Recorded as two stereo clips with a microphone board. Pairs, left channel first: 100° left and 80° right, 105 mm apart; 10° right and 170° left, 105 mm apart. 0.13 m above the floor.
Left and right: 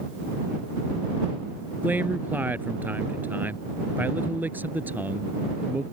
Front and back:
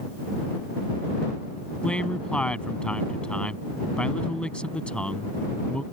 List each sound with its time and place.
1.8 s a man speaking: 70° right